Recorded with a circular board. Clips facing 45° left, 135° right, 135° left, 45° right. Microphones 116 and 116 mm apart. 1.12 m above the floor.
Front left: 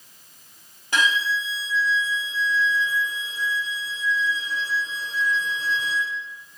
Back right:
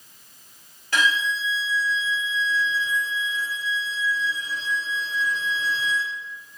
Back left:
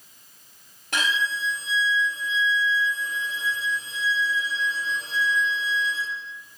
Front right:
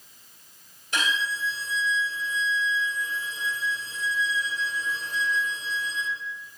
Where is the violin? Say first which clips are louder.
Even, back left 2 dB; 115° left, 1.4 m.